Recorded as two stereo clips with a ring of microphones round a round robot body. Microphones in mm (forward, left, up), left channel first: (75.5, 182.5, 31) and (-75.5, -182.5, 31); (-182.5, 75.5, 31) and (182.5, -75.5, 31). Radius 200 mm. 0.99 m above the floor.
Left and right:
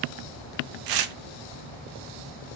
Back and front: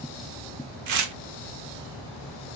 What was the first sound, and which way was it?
Tearing paper, 75° right.